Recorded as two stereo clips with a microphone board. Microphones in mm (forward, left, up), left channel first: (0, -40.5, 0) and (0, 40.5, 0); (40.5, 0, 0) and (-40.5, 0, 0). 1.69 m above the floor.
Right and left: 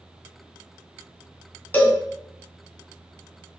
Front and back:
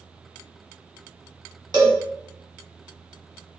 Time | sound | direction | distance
1.7 | a cowbell | 150° right | 1.1 m